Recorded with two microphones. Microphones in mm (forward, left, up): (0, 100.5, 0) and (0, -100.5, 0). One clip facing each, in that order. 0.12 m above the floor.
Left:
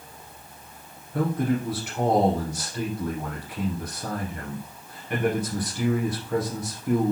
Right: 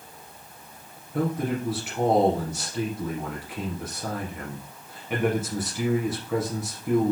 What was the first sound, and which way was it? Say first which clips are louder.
A man speaking: left 2 dB; 5° right (ahead or behind).